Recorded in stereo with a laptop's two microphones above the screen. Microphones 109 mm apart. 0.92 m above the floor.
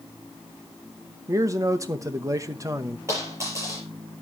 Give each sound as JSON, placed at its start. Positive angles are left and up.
{"t": 1.3, "sound": "a man speaking", "side_deg": -30, "distance_m": 0.9}
{"t": 3.1, "sound": "a dropped coin", "side_deg": -25, "distance_m": 7.0}